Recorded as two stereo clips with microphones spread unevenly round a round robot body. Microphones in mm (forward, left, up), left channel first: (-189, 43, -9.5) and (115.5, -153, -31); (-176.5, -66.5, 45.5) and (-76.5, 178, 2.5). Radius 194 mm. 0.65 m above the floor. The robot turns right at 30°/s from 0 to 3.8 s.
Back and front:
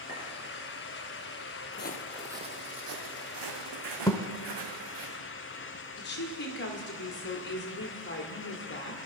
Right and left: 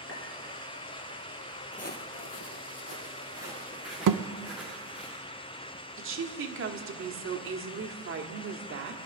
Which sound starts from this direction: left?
A woman speaking, at 6.0 s.